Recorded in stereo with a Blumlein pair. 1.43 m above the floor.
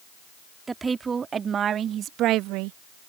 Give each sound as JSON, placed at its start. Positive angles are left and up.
{"t": 0.7, "sound": "a woman speaking", "azimuth_deg": -15}